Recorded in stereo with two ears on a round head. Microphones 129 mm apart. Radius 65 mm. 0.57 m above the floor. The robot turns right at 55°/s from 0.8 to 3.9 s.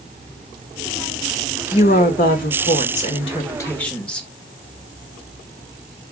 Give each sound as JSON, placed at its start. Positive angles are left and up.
{"t": 1.7, "sound": "a woman speaking", "azimuth_deg": 55, "distance_m": 1.5}